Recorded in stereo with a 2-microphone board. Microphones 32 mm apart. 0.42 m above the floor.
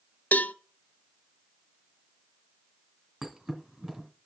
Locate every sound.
0.3 s a cowbell: 60° left (ahead or behind), 0.7 m
3.2 s a thud: 20° right (ahead or behind), 2 m